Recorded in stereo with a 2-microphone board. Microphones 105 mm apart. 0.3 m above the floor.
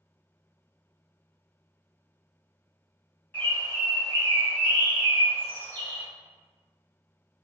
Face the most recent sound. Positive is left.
turn(degrees=15)  # may be behind; listen again after turning